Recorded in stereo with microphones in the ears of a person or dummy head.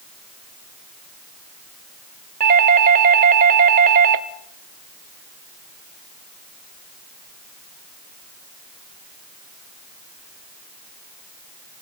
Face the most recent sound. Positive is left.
turn(degrees=-45)  # may be behind; listen again after turning